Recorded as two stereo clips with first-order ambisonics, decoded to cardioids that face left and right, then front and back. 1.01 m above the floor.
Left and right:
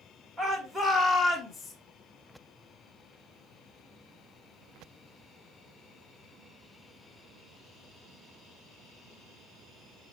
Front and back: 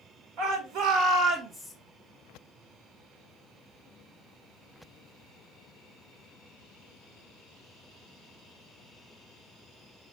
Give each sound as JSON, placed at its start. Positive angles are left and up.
{"t": 0.4, "sound": "a shout", "azimuth_deg": -170, "distance_m": 1.7}